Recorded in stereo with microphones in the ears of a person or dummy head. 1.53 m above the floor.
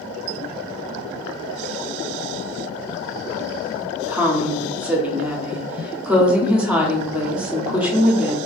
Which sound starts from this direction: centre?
A woman speaking, at 4.1 s.